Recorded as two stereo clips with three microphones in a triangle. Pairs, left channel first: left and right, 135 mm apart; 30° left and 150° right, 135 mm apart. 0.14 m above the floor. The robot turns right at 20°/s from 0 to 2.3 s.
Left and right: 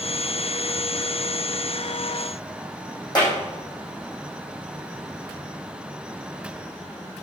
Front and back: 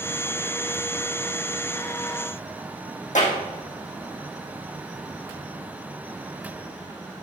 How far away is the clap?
About 4.5 m.